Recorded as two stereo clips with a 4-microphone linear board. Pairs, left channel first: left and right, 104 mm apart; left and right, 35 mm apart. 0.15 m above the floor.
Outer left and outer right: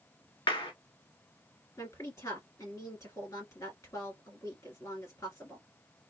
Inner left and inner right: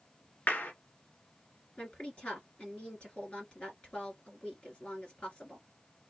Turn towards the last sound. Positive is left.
turn(degrees=30)  # may be behind; listen again after turning